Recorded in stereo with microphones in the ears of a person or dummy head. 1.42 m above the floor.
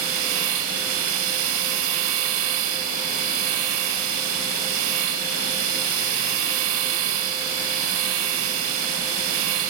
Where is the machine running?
85° right.